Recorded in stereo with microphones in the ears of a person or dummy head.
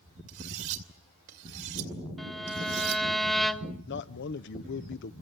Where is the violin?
Centre (ahead or behind), 0.9 m.